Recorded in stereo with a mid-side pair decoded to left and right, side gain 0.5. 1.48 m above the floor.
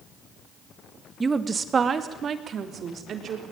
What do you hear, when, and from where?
1.2 s a woman speaking: 25° right, 1.7 m; by 3.4 s 55° right, 4 m